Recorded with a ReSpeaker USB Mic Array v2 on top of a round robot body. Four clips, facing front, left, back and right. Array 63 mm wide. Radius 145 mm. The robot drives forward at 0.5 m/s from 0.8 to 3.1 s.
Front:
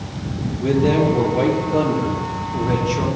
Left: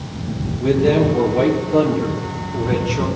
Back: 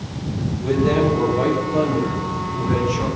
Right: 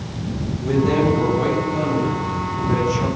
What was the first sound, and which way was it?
A man speaking, 55° left.